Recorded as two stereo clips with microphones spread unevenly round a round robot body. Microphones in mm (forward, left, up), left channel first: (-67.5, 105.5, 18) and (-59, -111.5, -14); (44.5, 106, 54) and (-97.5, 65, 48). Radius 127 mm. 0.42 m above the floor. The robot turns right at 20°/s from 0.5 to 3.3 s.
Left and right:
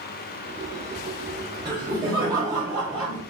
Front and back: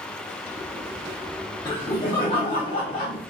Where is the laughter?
40° right, 0.9 m; by 3.2 s 10° right, 0.9 m.